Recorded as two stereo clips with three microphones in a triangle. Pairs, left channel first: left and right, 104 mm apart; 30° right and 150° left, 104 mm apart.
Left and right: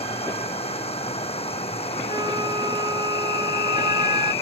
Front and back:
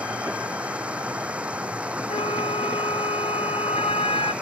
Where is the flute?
50° right.